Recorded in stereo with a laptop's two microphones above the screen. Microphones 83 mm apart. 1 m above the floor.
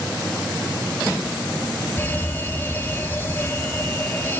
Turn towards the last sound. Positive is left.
turn(degrees=25)  # may be behind; listen again after turning